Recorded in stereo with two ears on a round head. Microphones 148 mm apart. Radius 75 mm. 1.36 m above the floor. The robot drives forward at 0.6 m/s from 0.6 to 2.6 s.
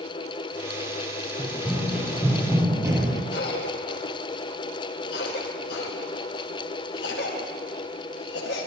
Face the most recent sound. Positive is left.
turn(degrees=70)  # may be behind; listen again after turning